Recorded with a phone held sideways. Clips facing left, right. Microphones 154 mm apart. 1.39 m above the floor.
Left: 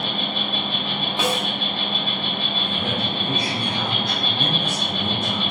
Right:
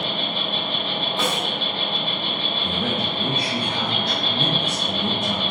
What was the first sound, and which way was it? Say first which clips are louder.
An insect: even; 65° right (ahead or behind).